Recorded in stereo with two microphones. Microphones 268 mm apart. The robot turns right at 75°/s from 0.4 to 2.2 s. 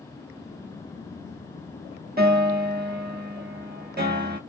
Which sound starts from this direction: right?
A piano, at 2.2 s.